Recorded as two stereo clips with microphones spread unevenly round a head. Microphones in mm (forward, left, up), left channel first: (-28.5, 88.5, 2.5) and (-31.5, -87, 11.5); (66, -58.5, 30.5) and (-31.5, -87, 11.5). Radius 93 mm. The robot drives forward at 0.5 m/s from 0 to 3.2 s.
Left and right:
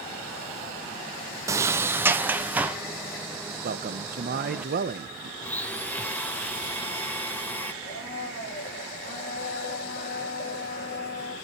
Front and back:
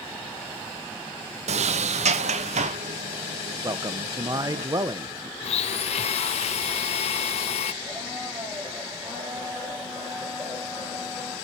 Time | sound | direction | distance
1.5 | a sliding door | 165° right | 0.6 m
3.6 | a man speaking | 105° right | 1.1 m
5.4 | a blender | 5° left | 0.6 m
7.8 | a blender | 120° left | 6.5 m